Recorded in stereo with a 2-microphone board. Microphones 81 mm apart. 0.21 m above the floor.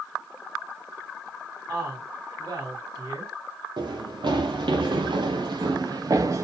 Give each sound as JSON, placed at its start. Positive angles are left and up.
{"t": 1.7, "sound": "a woman speaking", "side_deg": -70, "distance_m": 3.5}
{"t": 3.8, "sound": "running footsteps", "side_deg": -75, "distance_m": 1.7}